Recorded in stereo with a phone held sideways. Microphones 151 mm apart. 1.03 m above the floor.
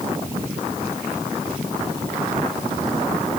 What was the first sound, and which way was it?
Only background noise.